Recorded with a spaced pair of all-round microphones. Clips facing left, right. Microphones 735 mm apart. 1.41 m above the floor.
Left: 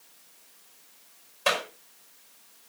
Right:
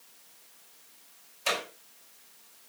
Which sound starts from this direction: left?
A clap, at 1.5 s.